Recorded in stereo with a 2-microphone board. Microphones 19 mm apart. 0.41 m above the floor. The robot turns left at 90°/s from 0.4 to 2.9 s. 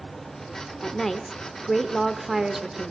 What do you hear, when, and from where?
0.8 s a woman speaking: 20° left (ahead or behind), 1.0 m; by 2.9 s 20° right (ahead or behind), 1.0 m